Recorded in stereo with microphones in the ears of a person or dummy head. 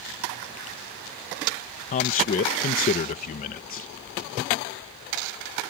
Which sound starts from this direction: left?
A man speaking, at 1.9 s.